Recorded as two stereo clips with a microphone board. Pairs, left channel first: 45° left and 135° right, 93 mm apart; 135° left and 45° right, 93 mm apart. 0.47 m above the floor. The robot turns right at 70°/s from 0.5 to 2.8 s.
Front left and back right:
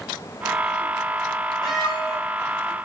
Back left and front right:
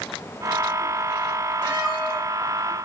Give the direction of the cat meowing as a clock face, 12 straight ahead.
10 o'clock.